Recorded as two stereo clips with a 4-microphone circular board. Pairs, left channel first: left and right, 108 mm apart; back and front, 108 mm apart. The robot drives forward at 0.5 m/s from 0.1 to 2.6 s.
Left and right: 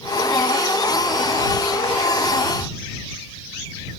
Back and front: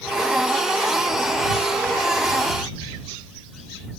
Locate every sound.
Only background noise.